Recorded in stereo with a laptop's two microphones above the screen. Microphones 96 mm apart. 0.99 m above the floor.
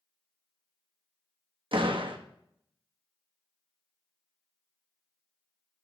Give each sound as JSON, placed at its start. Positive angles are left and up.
{"t": 1.7, "sound": "a door slam", "side_deg": -65, "distance_m": 1.2}